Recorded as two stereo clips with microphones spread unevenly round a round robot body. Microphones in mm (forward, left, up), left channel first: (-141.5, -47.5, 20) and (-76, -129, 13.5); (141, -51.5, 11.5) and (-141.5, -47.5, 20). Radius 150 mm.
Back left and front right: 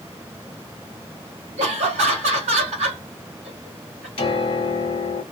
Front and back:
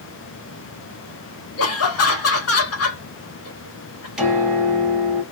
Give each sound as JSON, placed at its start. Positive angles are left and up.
{"t": 1.6, "sound": "laughter", "azimuth_deg": -40, "distance_m": 1.0}
{"t": 4.2, "sound": "a piano", "azimuth_deg": 90, "distance_m": 1.1}